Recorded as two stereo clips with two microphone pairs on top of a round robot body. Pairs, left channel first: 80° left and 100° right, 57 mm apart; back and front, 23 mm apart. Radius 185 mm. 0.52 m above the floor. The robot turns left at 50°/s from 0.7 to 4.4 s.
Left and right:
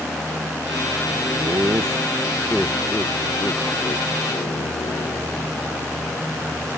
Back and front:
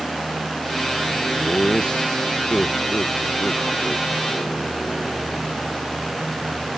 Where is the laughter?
125° right; by 5.8 s 85° left.